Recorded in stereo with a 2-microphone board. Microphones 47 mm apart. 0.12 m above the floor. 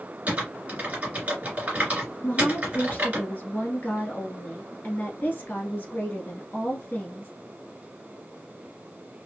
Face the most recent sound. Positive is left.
turn(degrees=45)  # may be behind; listen again after turning